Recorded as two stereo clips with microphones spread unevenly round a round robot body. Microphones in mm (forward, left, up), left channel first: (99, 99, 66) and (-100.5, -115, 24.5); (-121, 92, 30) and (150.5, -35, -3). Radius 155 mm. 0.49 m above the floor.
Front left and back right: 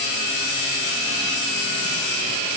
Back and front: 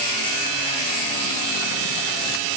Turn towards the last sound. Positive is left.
No sound to turn to.